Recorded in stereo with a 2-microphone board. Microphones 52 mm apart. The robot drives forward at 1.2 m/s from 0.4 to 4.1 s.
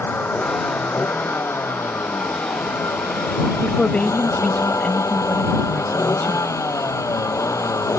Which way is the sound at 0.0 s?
40° left (ahead or behind).